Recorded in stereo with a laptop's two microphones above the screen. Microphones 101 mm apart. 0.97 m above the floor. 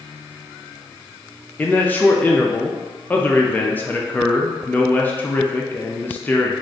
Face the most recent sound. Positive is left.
turn(degrees=15)  # may be behind; listen again after turning